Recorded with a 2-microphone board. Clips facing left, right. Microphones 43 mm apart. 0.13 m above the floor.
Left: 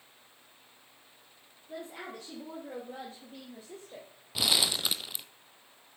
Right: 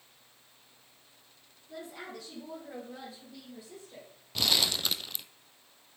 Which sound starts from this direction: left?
A woman speaking, at 1.7 s.